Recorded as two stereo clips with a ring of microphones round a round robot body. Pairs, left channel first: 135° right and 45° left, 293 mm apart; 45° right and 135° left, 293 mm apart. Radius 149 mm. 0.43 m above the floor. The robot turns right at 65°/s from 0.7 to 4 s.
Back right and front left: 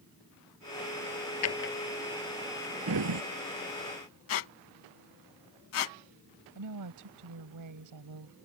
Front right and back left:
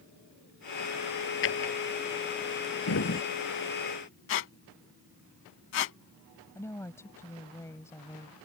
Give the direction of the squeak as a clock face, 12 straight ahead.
3 o'clock.